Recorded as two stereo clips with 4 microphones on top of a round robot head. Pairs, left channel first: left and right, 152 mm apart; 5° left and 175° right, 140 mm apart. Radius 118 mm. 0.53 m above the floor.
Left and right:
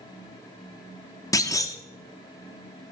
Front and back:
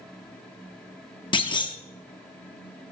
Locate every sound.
1.3 s a clunk: 35° left, 0.8 m